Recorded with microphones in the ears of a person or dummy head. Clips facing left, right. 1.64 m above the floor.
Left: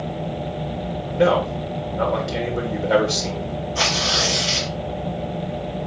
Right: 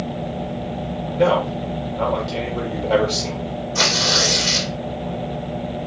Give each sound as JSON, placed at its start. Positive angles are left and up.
{"t": 1.1, "sound": "a man speaking", "side_deg": 15, "distance_m": 1.1}
{"t": 3.8, "sound": "tearing paper", "side_deg": -65, "distance_m": 2.0}